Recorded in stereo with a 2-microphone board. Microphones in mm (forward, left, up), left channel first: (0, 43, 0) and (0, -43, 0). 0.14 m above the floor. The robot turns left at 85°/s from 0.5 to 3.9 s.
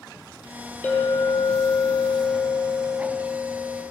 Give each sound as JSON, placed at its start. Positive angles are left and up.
{"t": 0.8, "sound": "a clink", "azimuth_deg": 160, "distance_m": 2.5}